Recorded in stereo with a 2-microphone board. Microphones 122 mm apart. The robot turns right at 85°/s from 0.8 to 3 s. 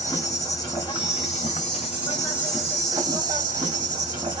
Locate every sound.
0.0 s an insect: 30° left, 1.3 m; by 4.4 s 145° right, 1.3 m